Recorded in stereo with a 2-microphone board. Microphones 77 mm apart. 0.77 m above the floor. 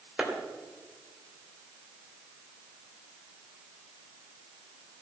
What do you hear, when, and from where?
0.2 s a clap: 10° right (ahead or behind), 3 m